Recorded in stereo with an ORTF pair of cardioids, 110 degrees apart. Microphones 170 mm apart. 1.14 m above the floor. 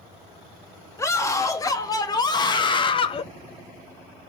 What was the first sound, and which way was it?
A scream, 20° left.